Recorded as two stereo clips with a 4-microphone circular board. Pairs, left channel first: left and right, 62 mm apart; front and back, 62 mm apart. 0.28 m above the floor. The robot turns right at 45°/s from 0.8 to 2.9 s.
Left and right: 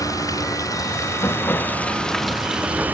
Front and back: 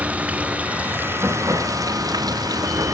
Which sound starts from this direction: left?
Running water, at 0.0 s.